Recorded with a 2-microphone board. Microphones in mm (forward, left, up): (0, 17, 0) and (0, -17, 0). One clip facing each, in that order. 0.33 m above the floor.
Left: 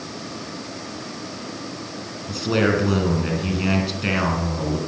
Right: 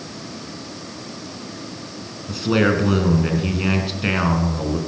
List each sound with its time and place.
2.3 s a man speaking: 5° right (ahead or behind), 3 m